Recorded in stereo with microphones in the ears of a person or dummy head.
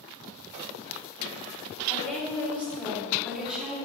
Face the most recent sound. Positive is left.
turn(degrees=-5)  # may be behind; listen again after turning